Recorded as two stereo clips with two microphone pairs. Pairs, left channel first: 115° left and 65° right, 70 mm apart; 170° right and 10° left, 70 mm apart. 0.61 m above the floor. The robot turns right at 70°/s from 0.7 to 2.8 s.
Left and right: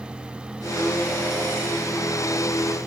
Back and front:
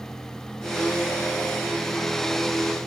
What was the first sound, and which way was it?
Only background noise.